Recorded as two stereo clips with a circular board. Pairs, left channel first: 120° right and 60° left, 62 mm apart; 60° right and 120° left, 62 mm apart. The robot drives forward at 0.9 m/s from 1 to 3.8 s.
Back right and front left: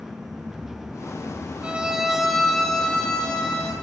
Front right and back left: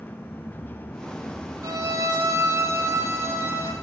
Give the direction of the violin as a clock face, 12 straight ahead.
8 o'clock.